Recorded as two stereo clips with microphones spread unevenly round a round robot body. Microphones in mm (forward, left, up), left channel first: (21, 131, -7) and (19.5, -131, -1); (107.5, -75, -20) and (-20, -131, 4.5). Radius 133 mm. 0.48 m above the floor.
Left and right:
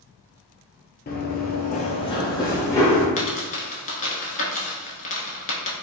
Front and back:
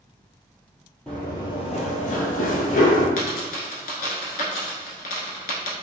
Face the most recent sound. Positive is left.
turn(degrees=30)